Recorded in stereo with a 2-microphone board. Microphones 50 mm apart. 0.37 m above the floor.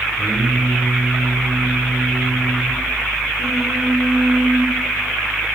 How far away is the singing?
About 6 m.